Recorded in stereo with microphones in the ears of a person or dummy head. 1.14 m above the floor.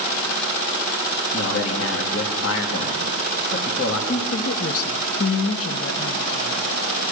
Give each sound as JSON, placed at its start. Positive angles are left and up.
{"t": 1.3, "sound": "a man speaking", "side_deg": 65, "distance_m": 2.5}
{"t": 4.1, "sound": "a woman speaking", "side_deg": 70, "distance_m": 1.2}